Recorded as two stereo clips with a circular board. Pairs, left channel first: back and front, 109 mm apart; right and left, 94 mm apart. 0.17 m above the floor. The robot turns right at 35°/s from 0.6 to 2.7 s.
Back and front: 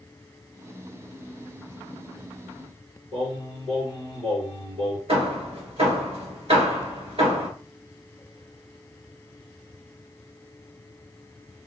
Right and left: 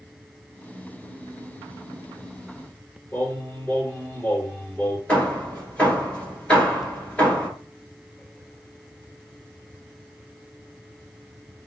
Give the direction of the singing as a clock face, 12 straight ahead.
1 o'clock.